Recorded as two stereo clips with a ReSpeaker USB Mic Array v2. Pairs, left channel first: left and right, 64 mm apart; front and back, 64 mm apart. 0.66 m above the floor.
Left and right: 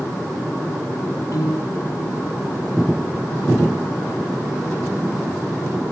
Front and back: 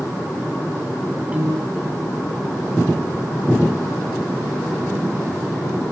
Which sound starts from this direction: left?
A piano, at 1.3 s.